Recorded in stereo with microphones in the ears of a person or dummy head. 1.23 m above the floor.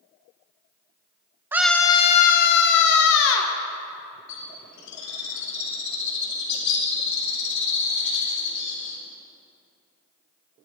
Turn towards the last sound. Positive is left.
turn(degrees=85)